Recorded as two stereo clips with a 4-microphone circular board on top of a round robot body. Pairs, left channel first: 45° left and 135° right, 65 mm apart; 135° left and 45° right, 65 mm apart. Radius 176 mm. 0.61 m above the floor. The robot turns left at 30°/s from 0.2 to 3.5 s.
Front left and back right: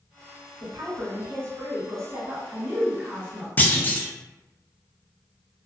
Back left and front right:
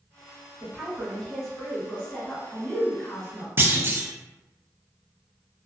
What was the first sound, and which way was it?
A woman speaking, 120° right.